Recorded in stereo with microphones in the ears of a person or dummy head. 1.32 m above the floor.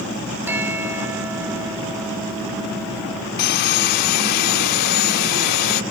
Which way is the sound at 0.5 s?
15° right (ahead or behind).